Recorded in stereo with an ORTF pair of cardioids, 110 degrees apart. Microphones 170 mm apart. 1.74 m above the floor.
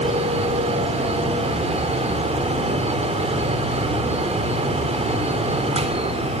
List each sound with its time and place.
0.0 s a fan: 40° right, 3.5 m